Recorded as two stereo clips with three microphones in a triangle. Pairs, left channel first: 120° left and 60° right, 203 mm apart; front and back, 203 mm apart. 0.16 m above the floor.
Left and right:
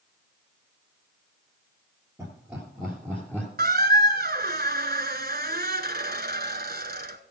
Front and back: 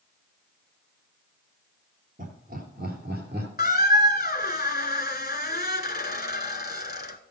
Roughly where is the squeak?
Ahead right.